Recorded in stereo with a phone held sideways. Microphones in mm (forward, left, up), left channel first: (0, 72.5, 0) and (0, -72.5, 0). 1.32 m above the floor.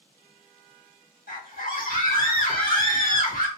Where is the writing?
No writing in this recording.